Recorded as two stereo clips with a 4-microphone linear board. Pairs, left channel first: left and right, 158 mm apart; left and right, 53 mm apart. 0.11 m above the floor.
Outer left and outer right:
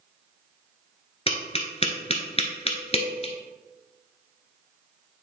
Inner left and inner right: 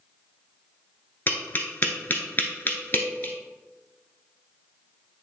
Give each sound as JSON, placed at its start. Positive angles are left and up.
{"t": 1.3, "sound": "tapping", "side_deg": 35, "distance_m": 1.1}